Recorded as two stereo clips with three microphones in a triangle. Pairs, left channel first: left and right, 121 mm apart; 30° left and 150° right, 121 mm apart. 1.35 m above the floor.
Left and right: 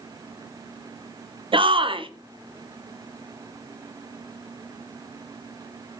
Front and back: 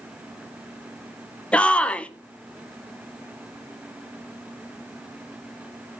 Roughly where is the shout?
Ahead right.